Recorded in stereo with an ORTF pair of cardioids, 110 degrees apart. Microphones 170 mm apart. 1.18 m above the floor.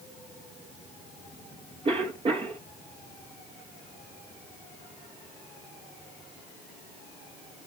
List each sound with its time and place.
1.9 s a cough: 35° right, 1.1 m